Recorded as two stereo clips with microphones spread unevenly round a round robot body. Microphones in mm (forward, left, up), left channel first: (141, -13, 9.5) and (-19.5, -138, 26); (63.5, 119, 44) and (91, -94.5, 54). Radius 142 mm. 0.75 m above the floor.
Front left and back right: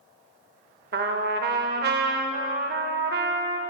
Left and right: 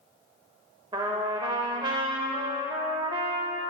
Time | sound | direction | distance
0.9 | a trumpet | 155° right | 0.6 m